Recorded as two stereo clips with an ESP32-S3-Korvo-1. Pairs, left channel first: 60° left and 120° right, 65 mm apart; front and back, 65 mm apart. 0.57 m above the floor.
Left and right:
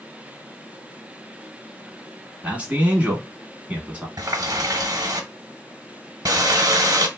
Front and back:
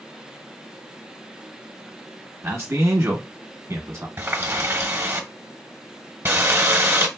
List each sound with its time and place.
2.4 s a man speaking: 175° right, 1.0 m
4.2 s a running tap: 125° right, 1.1 m